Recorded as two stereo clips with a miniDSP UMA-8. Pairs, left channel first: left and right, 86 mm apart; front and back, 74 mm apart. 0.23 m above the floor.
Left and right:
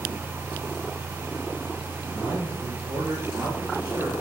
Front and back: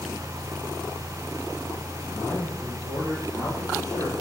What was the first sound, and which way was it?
A man speaking, 75° right.